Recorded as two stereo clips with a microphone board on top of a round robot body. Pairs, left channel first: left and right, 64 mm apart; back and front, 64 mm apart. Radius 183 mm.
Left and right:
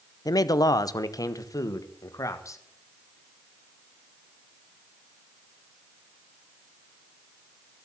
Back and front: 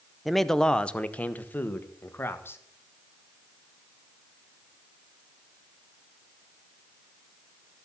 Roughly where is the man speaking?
Left.